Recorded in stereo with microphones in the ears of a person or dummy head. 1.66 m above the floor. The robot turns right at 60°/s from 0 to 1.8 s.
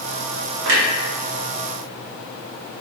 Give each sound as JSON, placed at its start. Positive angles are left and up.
{"t": 0.7, "sound": "a clunk", "side_deg": -65, "distance_m": 1.0}